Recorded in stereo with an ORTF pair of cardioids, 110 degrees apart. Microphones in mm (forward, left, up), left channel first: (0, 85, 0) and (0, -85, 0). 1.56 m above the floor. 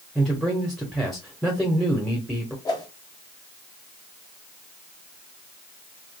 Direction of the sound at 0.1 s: Straight ahead.